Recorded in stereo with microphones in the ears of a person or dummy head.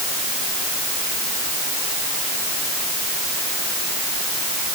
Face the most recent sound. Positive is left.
No sound to turn to.